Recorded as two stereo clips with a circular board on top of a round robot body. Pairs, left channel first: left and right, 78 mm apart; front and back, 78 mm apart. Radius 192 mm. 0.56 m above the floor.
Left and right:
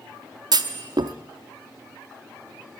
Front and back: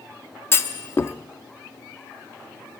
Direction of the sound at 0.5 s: 60° right.